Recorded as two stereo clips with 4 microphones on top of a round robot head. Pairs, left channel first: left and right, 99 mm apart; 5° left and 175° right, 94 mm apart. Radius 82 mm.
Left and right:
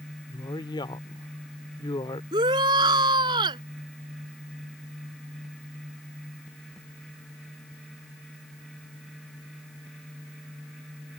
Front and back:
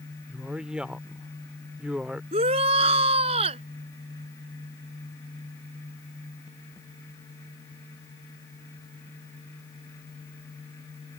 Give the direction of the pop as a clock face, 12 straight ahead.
I don't hear a pop.